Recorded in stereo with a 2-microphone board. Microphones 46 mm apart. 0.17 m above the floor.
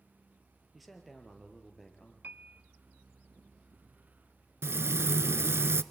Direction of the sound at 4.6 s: 65° right (ahead or behind).